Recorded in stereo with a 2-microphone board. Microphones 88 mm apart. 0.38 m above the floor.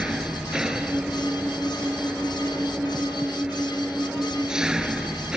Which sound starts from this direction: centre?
An engine running, at 0.0 s.